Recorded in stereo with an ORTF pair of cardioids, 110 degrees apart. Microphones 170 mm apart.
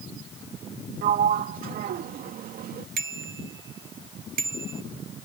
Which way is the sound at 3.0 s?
60° right.